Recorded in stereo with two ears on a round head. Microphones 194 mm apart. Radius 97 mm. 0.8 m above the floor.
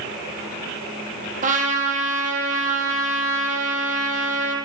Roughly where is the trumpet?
Right.